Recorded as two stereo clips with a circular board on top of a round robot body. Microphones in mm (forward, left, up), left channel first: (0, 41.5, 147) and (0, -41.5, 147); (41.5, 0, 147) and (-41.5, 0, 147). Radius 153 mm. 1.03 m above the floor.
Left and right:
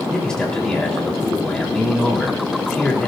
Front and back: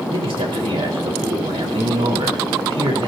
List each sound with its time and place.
0.1 s a man speaking: 170° left, 4 m